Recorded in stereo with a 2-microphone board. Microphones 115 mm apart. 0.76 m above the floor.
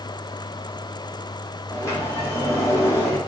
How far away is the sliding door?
About 1.5 m.